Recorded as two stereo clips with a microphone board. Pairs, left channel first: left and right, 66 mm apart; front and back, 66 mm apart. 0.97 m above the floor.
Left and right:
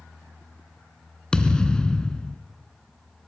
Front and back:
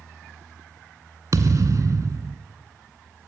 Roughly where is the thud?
Behind.